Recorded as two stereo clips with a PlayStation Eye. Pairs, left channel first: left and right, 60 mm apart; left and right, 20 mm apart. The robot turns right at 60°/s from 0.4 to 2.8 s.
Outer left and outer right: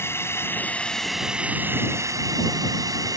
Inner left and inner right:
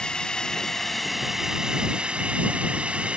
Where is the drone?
135° left; by 3.2 s 80° right.